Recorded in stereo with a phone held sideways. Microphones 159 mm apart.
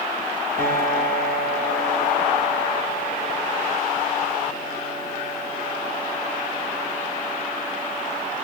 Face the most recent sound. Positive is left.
turn(degrees=-75)  # may be behind; listen again after turning